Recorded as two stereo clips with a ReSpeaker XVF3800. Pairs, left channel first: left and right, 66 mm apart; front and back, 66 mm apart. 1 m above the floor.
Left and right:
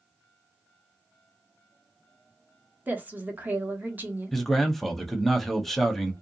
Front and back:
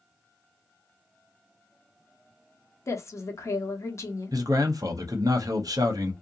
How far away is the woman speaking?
About 0.9 m.